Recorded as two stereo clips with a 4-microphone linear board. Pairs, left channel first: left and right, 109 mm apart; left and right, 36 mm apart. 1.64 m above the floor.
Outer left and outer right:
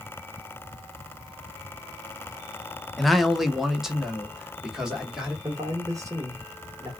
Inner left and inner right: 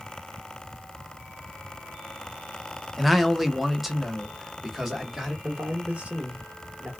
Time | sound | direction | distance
3.0 | a man speaking | centre (ahead or behind) | 0.6 m
5.4 | a man speaking | 30° right (ahead or behind) | 1.5 m